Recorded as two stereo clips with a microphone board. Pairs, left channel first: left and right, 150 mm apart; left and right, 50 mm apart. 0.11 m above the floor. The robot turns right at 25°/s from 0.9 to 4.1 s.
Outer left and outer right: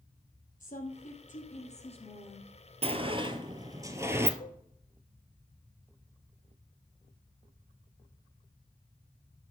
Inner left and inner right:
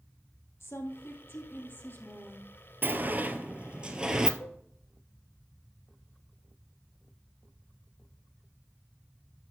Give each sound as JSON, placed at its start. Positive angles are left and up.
{"t": 0.6, "sound": "a woman speaking", "azimuth_deg": 105, "distance_m": 3.0}
{"t": 2.8, "sound": "a sliding door", "side_deg": -45, "distance_m": 1.0}
{"t": 4.4, "sound": "a cowbell", "side_deg": 65, "distance_m": 1.0}